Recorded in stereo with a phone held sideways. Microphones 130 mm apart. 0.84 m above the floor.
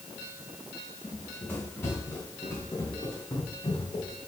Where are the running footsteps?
10° left (ahead or behind), 4.5 m; by 4.1 s 40° left (ahead or behind), 5 m.